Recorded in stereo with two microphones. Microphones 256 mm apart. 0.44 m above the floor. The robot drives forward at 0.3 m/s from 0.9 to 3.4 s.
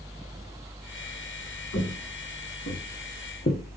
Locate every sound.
1.7 s footsteps: 80° left, 1.9 m; by 3.6 s 35° left (ahead or behind), 0.7 m